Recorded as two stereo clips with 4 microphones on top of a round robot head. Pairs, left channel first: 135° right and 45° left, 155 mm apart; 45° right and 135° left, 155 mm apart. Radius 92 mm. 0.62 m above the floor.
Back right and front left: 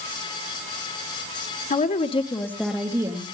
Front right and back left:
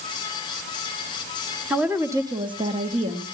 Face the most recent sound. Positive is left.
turn(degrees=90)